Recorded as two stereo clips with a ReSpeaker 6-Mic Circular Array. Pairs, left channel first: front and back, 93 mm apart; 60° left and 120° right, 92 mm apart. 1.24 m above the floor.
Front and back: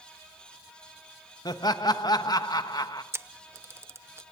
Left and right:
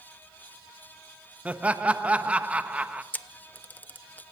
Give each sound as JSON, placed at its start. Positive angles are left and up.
{"t": 1.4, "sound": "laughter", "azimuth_deg": -45, "distance_m": 1.2}
{"t": 3.1, "sound": "a camera shutter", "azimuth_deg": 125, "distance_m": 0.7}